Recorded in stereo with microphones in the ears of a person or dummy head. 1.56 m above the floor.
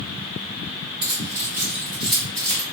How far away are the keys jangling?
About 1.2 m.